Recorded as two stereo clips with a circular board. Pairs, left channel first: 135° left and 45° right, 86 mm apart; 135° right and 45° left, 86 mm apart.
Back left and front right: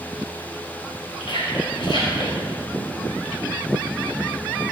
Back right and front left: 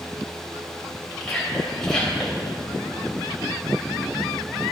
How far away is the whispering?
About 3.5 m.